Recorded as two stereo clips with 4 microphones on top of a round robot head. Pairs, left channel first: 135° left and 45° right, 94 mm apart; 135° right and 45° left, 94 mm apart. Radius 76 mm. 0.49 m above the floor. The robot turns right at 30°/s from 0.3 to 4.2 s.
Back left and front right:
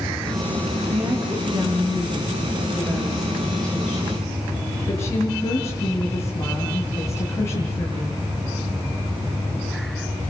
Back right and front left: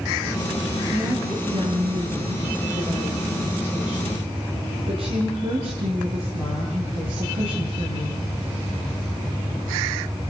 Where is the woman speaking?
25° right, 9 m; by 8.2 s 70° left, 9 m.